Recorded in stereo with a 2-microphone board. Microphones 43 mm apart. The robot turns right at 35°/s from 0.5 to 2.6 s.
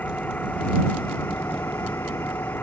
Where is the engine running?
45° left; by 2.6 s 120° left.